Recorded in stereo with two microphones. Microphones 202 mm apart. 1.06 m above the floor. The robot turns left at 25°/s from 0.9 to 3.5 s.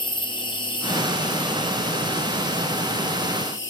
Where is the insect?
155° left, 0.8 m; by 3.7 s 90° left, 0.8 m.